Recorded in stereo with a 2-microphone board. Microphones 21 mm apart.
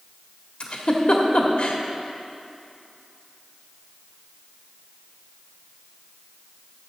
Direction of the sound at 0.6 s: 55° left (ahead or behind).